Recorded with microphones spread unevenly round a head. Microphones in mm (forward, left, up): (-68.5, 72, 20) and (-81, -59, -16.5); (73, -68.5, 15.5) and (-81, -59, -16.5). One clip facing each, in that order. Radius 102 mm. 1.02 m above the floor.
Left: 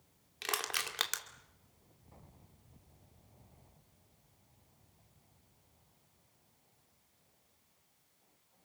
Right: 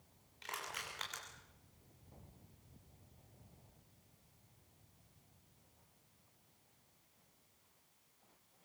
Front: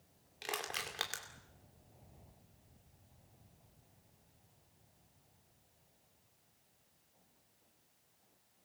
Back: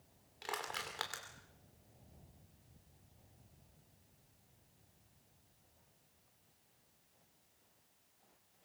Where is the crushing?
70° left, 2.5 m.